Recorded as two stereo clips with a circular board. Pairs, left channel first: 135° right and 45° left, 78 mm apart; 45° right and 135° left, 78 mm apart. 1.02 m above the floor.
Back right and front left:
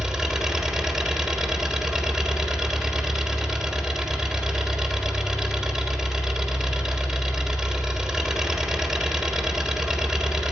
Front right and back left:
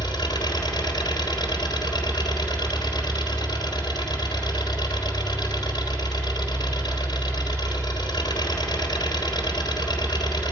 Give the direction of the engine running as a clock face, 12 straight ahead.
1 o'clock.